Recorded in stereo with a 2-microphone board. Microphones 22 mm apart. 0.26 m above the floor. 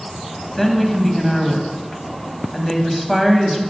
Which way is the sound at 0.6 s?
5° left (ahead or behind).